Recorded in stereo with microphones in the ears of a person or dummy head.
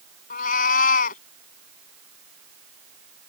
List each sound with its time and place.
0.3 s a cat meowing: 50° left (ahead or behind)